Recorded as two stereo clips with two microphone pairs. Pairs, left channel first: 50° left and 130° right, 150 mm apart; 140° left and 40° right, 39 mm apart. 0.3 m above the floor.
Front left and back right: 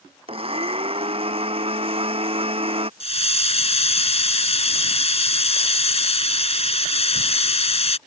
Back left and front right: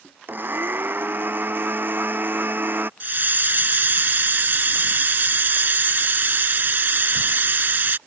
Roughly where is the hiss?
Ahead.